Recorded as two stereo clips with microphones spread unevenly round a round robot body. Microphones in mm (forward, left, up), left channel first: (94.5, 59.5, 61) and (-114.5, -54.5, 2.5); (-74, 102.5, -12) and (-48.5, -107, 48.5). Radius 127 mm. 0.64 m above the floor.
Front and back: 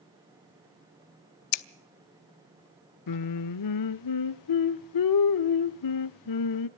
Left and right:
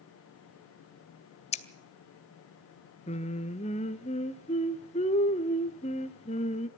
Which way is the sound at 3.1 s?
30° left.